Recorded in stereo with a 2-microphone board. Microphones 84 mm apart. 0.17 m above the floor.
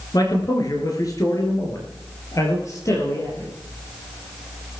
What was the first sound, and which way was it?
A man speaking, 50° left (ahead or behind).